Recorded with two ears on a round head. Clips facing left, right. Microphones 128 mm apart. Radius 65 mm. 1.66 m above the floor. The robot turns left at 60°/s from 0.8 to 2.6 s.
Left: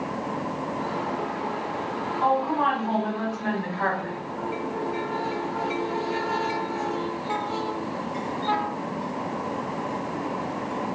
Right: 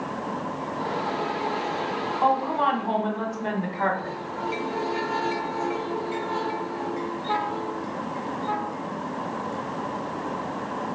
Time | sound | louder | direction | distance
2.2 | a woman speaking | even | 45° right (ahead or behind) | 1.4 m